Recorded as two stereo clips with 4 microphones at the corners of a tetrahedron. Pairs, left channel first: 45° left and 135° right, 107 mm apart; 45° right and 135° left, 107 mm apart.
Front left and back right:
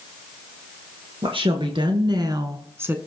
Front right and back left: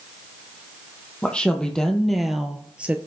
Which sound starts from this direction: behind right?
A woman speaking, at 1.2 s.